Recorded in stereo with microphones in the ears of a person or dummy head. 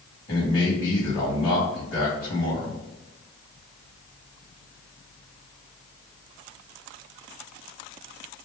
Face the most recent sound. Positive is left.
turn(degrees=20)  # may be behind; listen again after turning